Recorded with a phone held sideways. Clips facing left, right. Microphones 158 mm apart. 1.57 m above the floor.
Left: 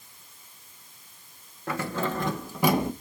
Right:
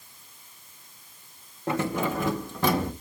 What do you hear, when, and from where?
1.7 s keys jangling: 25° right (ahead or behind), 1.8 m; by 2.9 s 20° left (ahead or behind), 1.6 m